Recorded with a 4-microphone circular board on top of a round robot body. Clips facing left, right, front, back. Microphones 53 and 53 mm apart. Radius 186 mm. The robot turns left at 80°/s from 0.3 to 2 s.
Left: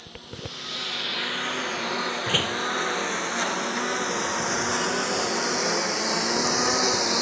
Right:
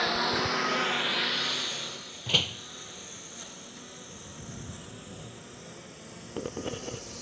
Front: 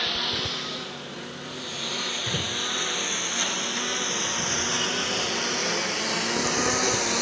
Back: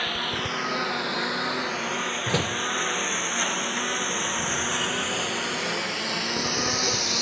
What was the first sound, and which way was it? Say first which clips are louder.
A lawn mower: right 12 dB, back 1 dB; 105° right.